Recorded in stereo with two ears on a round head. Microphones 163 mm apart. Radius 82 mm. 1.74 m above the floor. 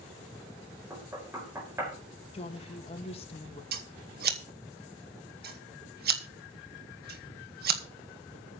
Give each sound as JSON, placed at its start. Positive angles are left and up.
{"t": 0.9, "sound": "knocking", "side_deg": -15, "distance_m": 4.5}
{"t": 2.3, "sound": "a woman speaking", "side_deg": 35, "distance_m": 2.5}
{"t": 3.7, "sound": "scissors", "side_deg": -60, "distance_m": 1.9}